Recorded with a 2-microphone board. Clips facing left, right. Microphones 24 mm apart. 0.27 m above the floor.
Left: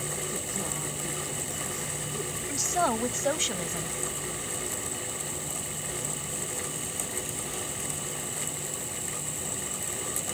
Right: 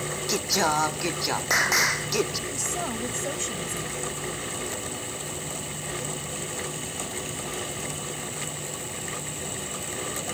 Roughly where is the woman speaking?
Left.